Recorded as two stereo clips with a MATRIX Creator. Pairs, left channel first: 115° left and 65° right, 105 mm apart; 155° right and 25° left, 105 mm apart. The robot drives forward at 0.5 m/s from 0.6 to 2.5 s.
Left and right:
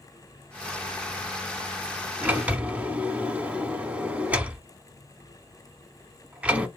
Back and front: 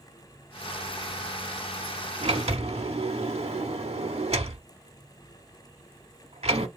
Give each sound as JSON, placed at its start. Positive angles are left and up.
{"t": 2.2, "sound": "a sliding door", "azimuth_deg": 10, "distance_m": 0.9}